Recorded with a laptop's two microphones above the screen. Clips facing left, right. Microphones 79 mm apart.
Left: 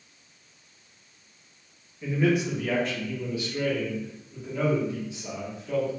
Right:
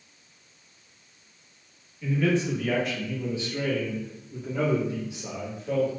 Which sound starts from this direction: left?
A man speaking, at 2.0 s.